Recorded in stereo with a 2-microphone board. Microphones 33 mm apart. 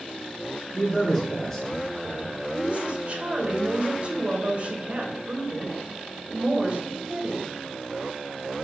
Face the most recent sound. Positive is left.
turn(degrees=-45)  # may be behind; listen again after turning